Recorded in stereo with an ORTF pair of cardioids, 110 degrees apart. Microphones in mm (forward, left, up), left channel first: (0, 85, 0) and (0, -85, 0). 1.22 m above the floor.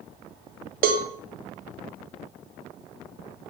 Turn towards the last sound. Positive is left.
turn(degrees=-60)